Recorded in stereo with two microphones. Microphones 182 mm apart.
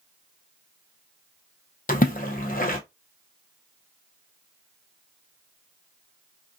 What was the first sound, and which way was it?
A splash, 50° left (ahead or behind).